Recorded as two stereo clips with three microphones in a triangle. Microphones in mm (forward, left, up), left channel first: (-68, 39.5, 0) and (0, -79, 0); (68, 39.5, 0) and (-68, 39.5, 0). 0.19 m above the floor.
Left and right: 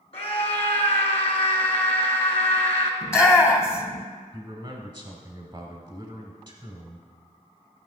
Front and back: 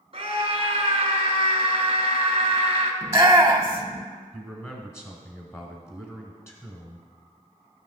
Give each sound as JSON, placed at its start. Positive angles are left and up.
{"t": 0.1, "sound": "a scream", "azimuth_deg": 145, "distance_m": 1.9}
{"t": 3.0, "sound": "a shout", "azimuth_deg": 150, "distance_m": 1.0}
{"t": 4.3, "sound": "a man speaking", "azimuth_deg": -45, "distance_m": 1.2}